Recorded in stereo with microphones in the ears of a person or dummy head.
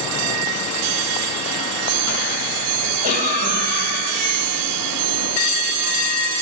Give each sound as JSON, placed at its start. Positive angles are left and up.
{"t": 3.0, "sound": "a cough", "side_deg": -40, "distance_m": 5.5}